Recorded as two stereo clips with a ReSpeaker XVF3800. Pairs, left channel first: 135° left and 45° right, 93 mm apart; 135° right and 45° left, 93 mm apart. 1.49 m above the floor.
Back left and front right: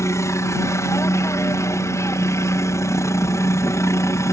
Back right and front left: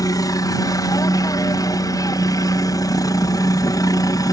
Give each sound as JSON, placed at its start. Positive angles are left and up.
{"t": 0.0, "sound": "a helicopter", "azimuth_deg": -175}